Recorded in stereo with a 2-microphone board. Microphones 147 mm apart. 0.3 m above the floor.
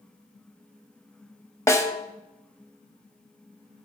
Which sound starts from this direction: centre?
A snare drum, at 1.7 s.